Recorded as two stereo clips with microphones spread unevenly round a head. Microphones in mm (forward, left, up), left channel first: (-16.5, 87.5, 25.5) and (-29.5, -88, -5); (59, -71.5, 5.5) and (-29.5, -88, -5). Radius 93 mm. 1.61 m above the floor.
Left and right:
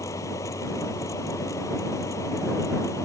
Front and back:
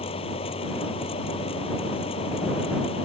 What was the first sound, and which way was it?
A fan, 10° left.